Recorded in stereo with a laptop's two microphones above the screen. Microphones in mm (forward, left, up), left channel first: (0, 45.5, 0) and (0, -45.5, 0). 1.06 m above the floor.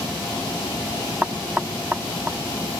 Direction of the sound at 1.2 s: 15° right (ahead or behind).